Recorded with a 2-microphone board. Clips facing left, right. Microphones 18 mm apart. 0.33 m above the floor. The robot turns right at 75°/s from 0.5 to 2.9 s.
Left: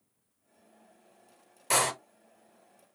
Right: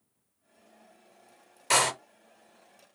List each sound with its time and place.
1.7 s a door slam: 30° right (ahead or behind), 0.6 m; by 1.9 s 20° right (ahead or behind), 0.6 m